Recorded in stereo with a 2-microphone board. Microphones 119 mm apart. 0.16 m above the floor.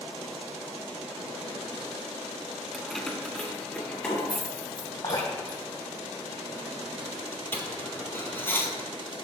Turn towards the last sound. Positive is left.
turn(degrees=20)  # may be behind; listen again after turning